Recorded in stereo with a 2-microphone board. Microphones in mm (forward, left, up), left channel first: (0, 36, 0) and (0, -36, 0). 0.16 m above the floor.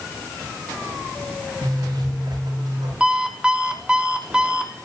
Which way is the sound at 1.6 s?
75° right (ahead or behind).